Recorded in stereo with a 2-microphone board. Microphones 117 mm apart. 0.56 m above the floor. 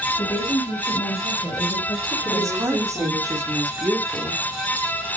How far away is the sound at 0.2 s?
About 3.5 m.